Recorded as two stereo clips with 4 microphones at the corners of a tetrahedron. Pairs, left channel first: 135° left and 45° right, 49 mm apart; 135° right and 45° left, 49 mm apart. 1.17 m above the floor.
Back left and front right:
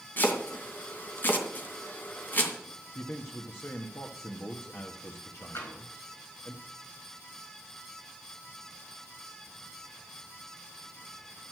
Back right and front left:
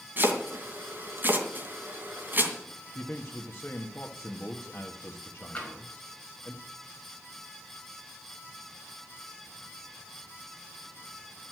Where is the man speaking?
170° left, 1.2 m.